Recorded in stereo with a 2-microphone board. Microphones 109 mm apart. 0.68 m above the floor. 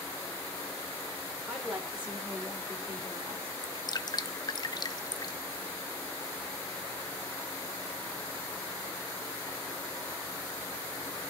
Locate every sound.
1.5 s a woman speaking: 5° right (ahead or behind), 2.5 m; by 3.6 s 40° right (ahead or behind), 2 m
3.6 s dripping: 40° left (ahead or behind), 0.6 m